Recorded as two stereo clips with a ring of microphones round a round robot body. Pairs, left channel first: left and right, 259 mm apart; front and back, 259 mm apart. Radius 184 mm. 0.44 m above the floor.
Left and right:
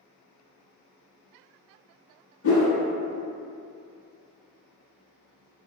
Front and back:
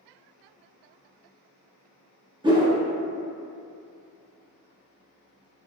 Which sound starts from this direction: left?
A whoosh, at 2.4 s.